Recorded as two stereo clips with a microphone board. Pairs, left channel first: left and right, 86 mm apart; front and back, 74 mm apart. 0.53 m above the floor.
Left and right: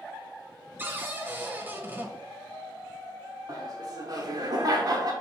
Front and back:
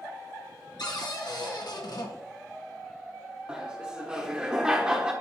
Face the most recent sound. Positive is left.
turn(degrees=-105)